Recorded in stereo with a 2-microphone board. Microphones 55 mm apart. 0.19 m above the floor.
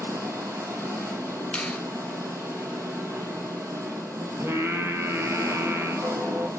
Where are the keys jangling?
I don't hear keys jangling.